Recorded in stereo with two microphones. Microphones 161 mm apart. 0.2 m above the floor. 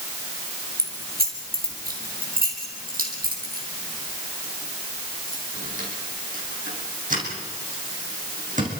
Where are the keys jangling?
70° right (ahead or behind), 3.5 m; by 8.8 s 50° right (ahead or behind), 8 m.